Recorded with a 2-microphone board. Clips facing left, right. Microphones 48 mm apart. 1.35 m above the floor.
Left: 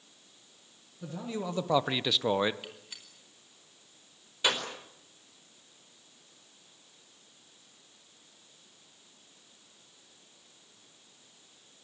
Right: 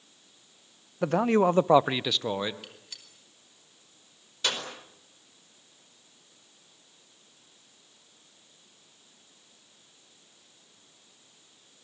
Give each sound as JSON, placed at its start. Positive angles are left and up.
{"t": 1.0, "sound": "a man speaking", "side_deg": -75, "distance_m": 0.9}
{"t": 2.6, "sound": "a gunshot", "side_deg": 15, "distance_m": 4.5}